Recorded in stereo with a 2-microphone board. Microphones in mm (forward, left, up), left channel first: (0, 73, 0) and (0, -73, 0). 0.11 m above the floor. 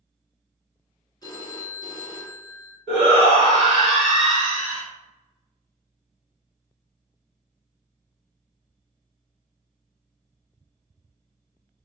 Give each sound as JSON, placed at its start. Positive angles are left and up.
{"t": 1.2, "sound": "a phone ringing", "side_deg": 30, "distance_m": 0.7}
{"t": 2.9, "sound": "a shout", "side_deg": 30, "distance_m": 1.9}